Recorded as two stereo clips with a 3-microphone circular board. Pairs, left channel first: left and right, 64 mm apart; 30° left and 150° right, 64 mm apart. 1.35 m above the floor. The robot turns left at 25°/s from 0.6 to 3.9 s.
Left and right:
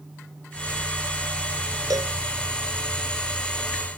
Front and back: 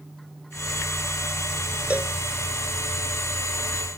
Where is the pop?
No pop in this recording.